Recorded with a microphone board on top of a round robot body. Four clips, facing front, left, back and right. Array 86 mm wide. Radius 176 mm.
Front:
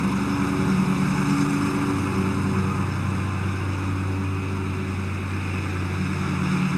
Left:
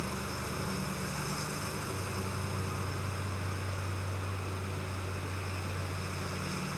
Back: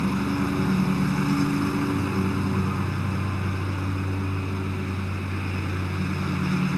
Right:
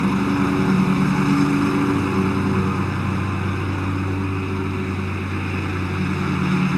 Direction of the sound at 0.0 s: 80° right.